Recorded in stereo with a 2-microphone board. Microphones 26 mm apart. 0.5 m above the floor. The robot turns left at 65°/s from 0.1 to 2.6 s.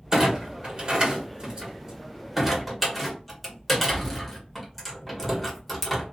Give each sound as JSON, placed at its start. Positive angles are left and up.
{"t": 0.1, "sound": "a clunk", "side_deg": -15, "distance_m": 1.1}